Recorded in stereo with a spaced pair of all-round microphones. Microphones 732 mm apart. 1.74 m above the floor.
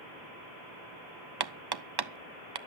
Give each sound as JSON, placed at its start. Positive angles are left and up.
{"t": 1.4, "sound": "hammering", "side_deg": -35, "distance_m": 0.5}